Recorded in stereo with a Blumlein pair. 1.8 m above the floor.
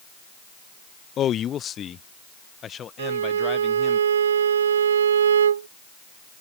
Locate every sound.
1.2 s a man speaking: 30° left; by 4.0 s 25° left
3.0 s a violin: 65° right